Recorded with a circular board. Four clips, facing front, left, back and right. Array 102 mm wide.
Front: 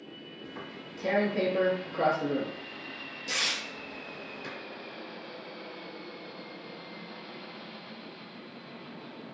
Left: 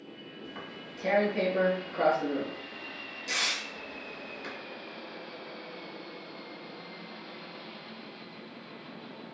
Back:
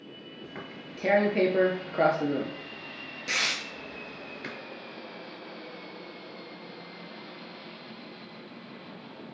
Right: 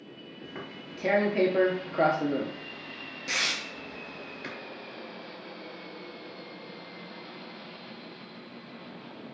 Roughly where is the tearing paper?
Behind right.